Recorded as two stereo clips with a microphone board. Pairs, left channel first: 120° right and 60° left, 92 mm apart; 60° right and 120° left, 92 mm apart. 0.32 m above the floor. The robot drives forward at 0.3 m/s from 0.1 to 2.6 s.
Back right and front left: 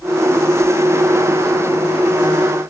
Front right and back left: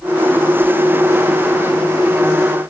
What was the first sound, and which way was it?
Only background noise.